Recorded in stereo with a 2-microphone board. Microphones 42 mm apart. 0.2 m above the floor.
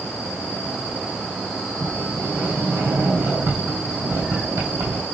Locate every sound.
1.8 s a sliding door: 80° right, 4 m